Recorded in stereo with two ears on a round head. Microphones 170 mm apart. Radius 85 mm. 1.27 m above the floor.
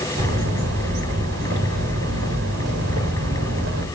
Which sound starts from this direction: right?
A bird, at 0.2 s.